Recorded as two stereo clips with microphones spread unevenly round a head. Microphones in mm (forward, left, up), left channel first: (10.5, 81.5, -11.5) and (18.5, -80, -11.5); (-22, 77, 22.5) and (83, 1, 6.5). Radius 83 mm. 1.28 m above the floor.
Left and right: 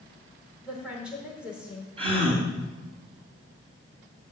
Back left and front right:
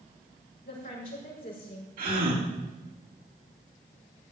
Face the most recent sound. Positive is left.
turn(degrees=-30)